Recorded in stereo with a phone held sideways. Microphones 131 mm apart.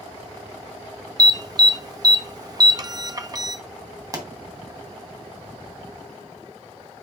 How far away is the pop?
About 2 m.